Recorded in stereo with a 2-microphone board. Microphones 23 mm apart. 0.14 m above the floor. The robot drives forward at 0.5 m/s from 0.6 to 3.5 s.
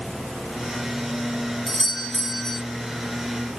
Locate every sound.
1.7 s a doorbell: 10° left (ahead or behind), 3 m